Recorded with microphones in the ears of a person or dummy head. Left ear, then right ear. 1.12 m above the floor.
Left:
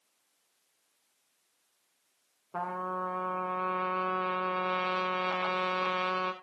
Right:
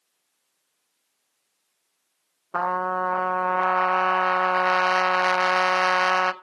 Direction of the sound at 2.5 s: 60° right (ahead or behind).